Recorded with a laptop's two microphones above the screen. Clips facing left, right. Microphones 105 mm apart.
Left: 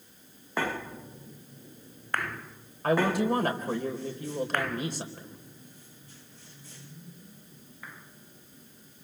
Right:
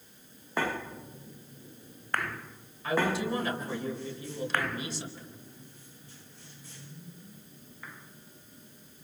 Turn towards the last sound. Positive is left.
turn(degrees=55)  # may be behind; listen again after turning